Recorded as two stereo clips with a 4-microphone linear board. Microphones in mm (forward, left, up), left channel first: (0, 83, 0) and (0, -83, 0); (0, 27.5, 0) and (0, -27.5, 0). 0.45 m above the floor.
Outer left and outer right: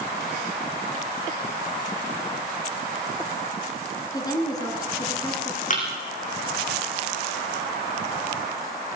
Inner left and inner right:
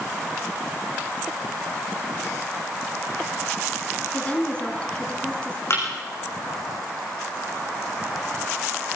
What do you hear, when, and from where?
4.1 s a woman speaking: 20° left (ahead or behind), 6 m
5.7 s a thud: 50° left (ahead or behind), 7 m